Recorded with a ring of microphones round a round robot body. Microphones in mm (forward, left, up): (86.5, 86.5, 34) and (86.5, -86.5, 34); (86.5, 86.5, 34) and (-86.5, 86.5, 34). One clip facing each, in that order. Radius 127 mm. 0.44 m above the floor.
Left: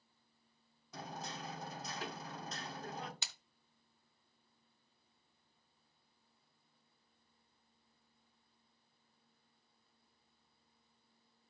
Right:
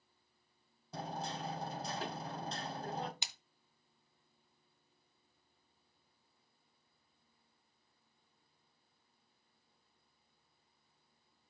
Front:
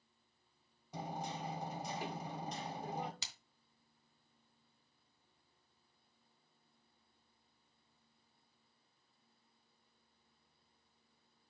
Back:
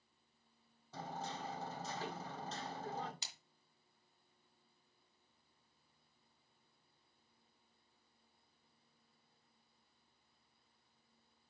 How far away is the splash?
About 1.2 m.